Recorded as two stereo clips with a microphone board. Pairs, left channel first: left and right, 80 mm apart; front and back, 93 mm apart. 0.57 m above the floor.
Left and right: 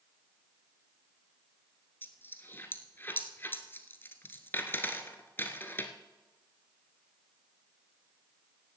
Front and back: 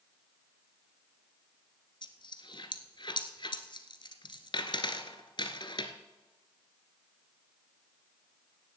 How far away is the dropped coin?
About 1.1 m.